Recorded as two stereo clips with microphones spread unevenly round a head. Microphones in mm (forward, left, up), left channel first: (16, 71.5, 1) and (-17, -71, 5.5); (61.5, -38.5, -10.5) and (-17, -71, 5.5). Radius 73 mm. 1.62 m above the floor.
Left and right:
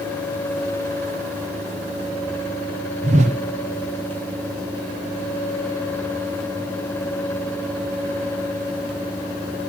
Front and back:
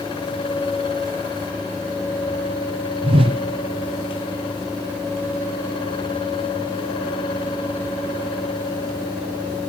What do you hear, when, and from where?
3.0 s a whoosh: 150° right, 0.7 m